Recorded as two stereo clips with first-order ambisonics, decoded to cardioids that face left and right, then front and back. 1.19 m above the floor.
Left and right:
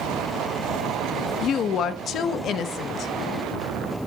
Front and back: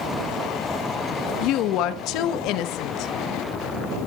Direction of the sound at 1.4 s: 35° left.